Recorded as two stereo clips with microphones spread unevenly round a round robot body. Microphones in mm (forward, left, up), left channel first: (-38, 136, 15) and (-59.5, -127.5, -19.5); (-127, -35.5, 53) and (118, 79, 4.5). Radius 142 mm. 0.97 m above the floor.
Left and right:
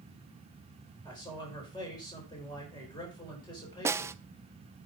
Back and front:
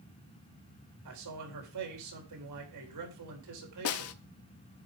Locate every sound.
1.1 s a man speaking: 10° left, 3.5 m
3.9 s a snare drum: 175° right, 0.6 m